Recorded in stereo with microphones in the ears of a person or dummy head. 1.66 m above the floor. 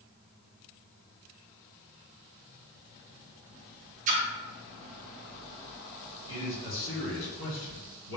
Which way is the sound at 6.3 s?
60° left (ahead or behind).